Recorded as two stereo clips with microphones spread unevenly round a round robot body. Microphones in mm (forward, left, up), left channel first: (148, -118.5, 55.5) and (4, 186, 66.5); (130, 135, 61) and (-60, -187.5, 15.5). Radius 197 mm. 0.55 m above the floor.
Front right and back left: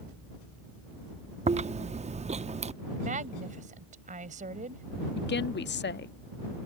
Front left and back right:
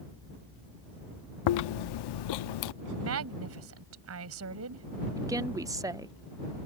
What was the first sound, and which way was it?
Chewing, 45° left.